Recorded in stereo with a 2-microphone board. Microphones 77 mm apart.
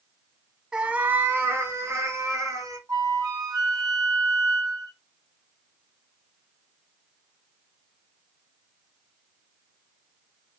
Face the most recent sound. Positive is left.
turn(degrees=-55)  # may be behind; listen again after turning